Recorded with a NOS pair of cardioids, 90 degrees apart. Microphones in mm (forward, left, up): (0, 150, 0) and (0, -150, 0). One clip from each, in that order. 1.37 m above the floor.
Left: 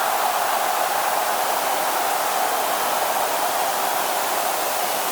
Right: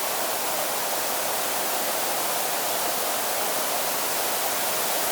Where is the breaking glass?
No breaking glass in this recording.